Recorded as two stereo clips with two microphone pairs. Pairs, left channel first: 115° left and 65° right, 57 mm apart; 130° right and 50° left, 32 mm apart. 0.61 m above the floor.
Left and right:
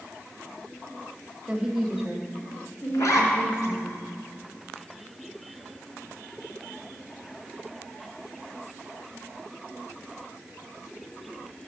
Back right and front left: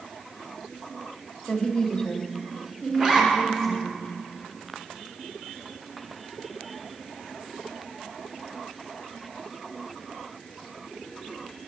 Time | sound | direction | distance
1.5 | a woman speaking | 115° right | 1.2 m
2.9 | a zipper | 115° left | 2.5 m